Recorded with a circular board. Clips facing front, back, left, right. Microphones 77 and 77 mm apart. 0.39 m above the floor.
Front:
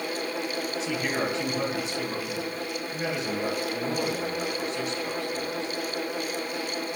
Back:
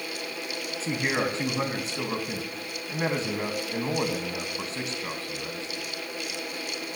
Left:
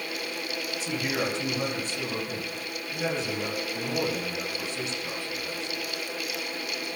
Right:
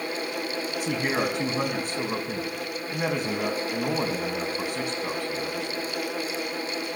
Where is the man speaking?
125° right, 3.5 m.